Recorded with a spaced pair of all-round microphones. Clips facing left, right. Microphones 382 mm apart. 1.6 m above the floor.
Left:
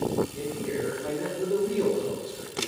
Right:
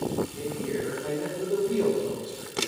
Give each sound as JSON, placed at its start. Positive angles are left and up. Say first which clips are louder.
{"t": 0.3, "sound": "a man speaking", "louder": "even", "side_deg": 30, "distance_m": 5.5}